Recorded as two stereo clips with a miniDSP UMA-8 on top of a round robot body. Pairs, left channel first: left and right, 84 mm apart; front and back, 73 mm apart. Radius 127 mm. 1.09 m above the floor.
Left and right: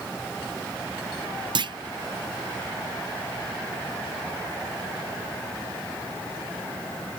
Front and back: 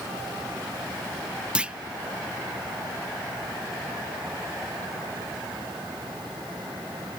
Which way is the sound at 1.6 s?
105° right.